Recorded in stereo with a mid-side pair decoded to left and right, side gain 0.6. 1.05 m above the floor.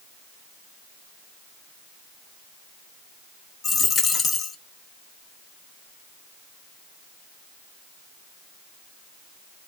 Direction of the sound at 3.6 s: 40° left.